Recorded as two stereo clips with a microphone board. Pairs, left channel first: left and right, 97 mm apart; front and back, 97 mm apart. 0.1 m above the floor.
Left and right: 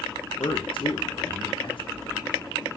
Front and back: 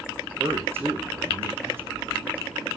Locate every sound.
0.4 s a man speaking: 115° left, 5.5 m